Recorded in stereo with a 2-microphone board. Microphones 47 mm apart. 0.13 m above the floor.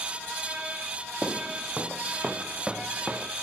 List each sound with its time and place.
1.2 s footsteps: 10° right (ahead or behind)